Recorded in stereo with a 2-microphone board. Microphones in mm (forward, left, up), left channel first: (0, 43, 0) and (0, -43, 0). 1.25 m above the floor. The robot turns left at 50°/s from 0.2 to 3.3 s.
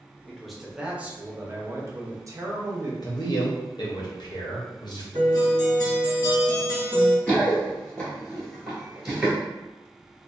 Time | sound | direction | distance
0.3 | a man speaking | 15° left | 0.6 m
3.0 | a man speaking | 50° left (ahead or behind) | 0.7 m
5.1 | a guitar | 45° left (ahead or behind) | 1.6 m
7.3 | running footsteps | 15° left (ahead or behind) | 1.3 m